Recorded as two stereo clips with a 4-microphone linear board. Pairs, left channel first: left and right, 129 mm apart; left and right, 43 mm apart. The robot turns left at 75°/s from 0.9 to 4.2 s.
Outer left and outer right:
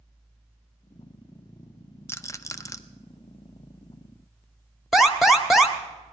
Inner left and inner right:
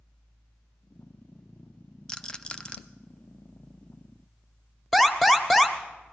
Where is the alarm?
Centre (ahead or behind), 1.1 m.